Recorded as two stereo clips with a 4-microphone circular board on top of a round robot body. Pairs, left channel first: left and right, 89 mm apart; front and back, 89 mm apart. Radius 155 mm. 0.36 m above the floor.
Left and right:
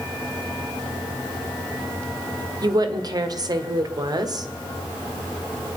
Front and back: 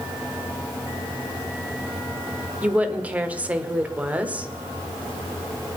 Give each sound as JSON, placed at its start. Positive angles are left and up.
{"t": 2.6, "sound": "a woman speaking", "azimuth_deg": -110, "distance_m": 1.7}